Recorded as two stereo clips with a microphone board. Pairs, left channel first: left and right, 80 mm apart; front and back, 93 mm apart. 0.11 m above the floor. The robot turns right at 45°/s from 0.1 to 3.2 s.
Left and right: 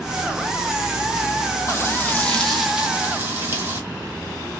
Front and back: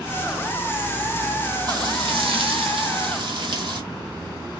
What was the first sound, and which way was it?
Frying, 140° left.